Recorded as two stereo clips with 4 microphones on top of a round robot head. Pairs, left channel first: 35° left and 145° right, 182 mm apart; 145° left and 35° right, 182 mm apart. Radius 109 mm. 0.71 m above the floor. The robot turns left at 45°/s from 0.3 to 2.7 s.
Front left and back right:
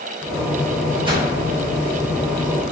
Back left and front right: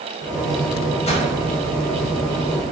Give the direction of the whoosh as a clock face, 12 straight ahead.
6 o'clock.